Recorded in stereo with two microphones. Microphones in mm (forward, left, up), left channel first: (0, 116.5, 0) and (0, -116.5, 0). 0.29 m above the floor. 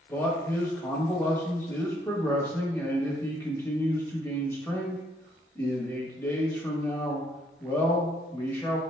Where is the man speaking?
10° left (ahead or behind), 0.9 m.